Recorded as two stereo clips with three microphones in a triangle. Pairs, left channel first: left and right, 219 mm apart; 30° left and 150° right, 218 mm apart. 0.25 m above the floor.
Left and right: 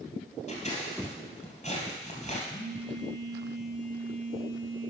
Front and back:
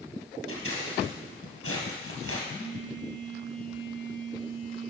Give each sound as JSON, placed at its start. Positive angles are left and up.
{"t": 0.5, "sound": "scissors", "azimuth_deg": 30, "distance_m": 2.5}
{"t": 2.5, "sound": "a phone buzzing", "azimuth_deg": 65, "distance_m": 3.0}